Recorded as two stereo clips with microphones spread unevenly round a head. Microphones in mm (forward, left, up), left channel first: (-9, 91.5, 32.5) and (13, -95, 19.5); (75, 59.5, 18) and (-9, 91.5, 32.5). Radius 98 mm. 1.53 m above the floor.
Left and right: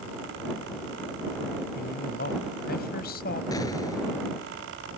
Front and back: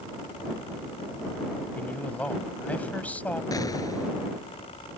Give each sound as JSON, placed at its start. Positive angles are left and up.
{"t": 1.8, "sound": "a man speaking", "azimuth_deg": 55}
{"t": 3.5, "sound": "an explosion", "azimuth_deg": 25}